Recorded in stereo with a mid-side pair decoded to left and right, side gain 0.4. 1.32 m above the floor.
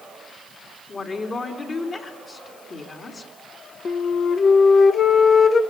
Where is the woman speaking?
45° left, 3.5 m.